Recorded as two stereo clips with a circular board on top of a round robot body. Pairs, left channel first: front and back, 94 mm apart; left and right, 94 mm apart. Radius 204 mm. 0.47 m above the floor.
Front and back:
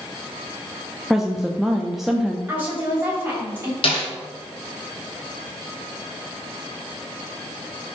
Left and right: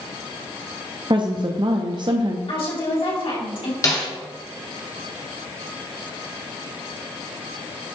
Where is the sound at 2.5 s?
110° left, 3.5 m.